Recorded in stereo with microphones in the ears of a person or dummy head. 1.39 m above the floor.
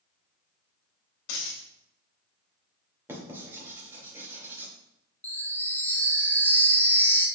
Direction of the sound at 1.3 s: 75° left (ahead or behind).